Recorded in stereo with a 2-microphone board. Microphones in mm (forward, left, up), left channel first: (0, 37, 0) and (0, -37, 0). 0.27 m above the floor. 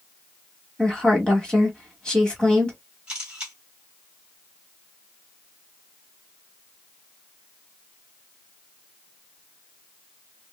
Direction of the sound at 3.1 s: 10° right (ahead or behind).